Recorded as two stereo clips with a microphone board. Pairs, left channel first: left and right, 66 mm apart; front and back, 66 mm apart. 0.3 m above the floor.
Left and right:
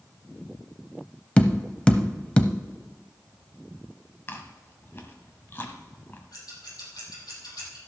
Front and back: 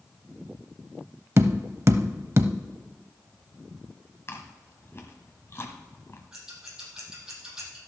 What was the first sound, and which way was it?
Tapping, 155° left.